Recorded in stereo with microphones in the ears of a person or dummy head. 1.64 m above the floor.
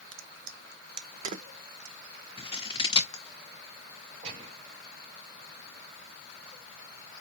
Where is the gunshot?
35° right (ahead or behind), 2.5 m.